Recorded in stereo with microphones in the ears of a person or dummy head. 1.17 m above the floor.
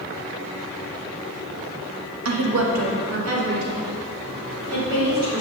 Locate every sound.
2.2 s a woman speaking: 80° right, 1.2 m; by 5.4 s 75° right (ahead or behind), 3.5 m